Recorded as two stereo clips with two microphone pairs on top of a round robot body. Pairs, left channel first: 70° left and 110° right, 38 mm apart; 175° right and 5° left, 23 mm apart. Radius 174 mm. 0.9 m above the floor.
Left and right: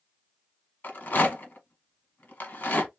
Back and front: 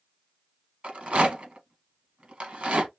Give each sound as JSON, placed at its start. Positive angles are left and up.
{"t": 0.8, "sound": "a rattle", "azimuth_deg": 35, "distance_m": 1.4}